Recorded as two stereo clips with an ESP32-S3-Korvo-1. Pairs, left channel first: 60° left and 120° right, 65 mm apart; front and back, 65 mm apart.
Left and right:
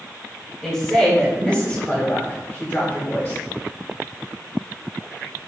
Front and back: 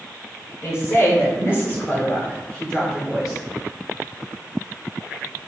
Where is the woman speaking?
20° right, 1.9 m; by 3.4 s 90° left, 1.6 m.